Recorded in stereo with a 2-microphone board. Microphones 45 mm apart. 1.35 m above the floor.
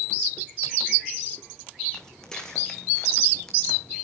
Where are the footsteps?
15° left (ahead or behind), 4 m.